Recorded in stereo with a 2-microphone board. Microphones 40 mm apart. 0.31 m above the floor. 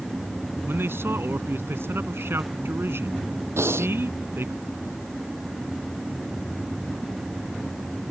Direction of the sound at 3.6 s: 85° right.